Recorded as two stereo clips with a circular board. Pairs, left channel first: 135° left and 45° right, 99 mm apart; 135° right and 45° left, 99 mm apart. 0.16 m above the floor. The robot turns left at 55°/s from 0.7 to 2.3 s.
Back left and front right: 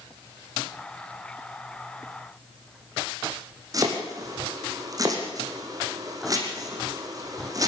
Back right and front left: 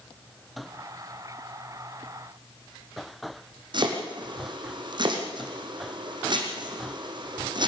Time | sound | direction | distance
3.7 | chopping | 5° left | 4 m